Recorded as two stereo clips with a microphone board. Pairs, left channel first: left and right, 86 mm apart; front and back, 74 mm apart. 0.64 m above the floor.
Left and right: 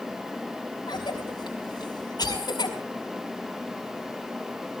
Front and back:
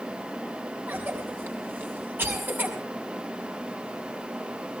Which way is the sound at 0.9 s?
120° left.